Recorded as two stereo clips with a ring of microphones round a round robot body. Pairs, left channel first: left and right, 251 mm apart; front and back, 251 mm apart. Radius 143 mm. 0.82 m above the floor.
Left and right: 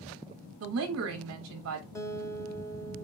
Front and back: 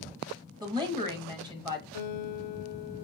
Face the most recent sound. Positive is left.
turn(degrees=10)